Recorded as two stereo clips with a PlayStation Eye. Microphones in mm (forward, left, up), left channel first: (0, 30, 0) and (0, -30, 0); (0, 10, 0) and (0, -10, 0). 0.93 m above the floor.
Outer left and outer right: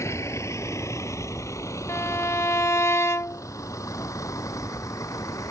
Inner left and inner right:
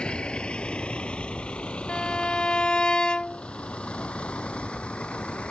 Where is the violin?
55° left (ahead or behind).